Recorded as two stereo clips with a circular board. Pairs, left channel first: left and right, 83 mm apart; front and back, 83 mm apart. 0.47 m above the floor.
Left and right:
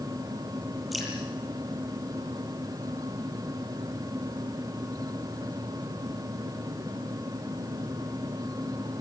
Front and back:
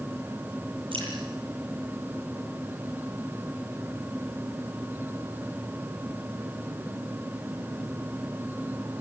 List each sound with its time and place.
0.9 s dripping: straight behind, 9 m